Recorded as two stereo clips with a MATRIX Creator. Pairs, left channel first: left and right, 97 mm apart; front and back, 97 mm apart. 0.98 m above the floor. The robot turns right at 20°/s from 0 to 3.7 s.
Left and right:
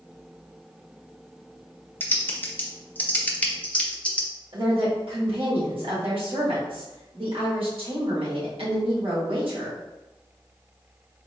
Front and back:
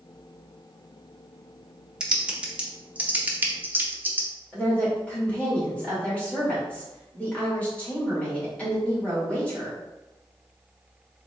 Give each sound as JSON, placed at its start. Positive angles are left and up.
{"t": 2.0, "sound": "typing on a keyboard", "azimuth_deg": 110, "distance_m": 0.7}
{"t": 4.5, "sound": "a woman speaking", "azimuth_deg": -75, "distance_m": 1.9}